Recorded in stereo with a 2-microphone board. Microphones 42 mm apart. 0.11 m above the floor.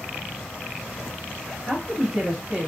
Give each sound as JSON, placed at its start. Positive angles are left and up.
{"t": 1.7, "sound": "a woman speaking", "side_deg": -35, "distance_m": 1.8}